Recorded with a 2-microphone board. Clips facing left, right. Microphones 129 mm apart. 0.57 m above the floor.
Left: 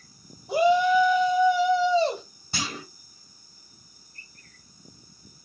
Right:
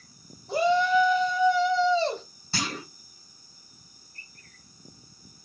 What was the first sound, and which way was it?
A shout, 15° left (ahead or behind).